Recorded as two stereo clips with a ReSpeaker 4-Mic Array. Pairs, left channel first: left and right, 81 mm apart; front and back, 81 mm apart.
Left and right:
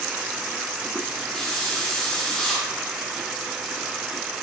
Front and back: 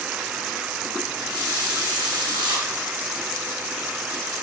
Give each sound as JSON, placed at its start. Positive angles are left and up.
{"t": 1.4, "sound": "a hiss", "azimuth_deg": 175, "distance_m": 2.0}